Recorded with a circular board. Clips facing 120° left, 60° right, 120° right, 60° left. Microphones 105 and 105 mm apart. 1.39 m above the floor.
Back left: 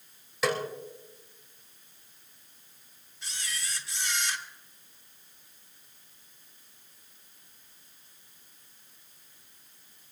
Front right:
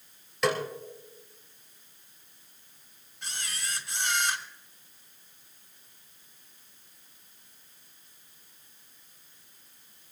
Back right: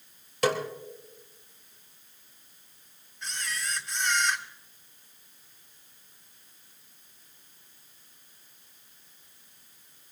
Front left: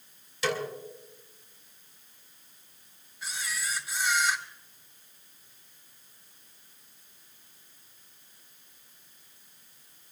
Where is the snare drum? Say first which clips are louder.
Front right 1 dB, back right 4 dB; 150° right, 3 m.